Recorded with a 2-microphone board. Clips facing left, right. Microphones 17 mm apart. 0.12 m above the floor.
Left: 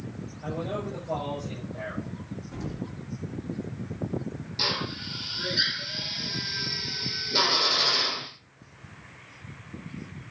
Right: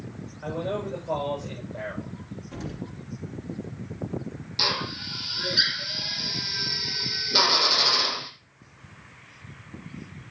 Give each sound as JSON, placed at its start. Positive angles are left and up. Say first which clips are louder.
{"t": 0.4, "sound": "a man speaking", "louder": "right 3 dB", "side_deg": -75, "distance_m": 10.0}
{"t": 2.5, "sound": "an explosion", "louder": "even", "side_deg": -55, "distance_m": 3.5}
{"t": 4.6, "sound": "a drill", "louder": "right 3 dB", "side_deg": -30, "distance_m": 2.5}